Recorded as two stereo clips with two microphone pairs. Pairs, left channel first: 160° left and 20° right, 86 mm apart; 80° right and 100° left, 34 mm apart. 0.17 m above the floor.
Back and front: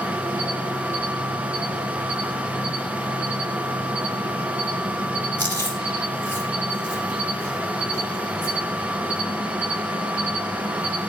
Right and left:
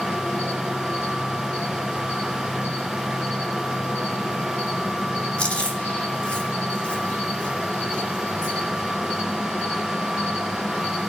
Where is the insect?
80° right, 3 m.